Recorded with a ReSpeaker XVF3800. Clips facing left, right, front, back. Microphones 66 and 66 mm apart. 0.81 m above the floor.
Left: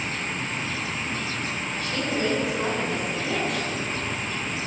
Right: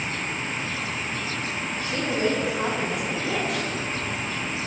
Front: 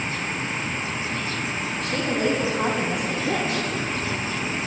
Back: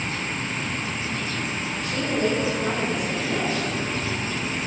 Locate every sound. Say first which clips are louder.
1.8 s a woman speaking: right 2 dB, even; 25° right, 6 m; by 3.8 s 5° left, 6.5 m